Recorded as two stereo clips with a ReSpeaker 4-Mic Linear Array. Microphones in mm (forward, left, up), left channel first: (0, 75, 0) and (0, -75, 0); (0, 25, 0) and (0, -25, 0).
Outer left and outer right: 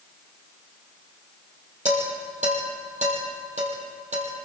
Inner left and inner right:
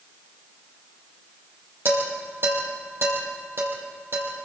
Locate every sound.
1.9 s dishes clattering: 50° right (ahead or behind), 7 m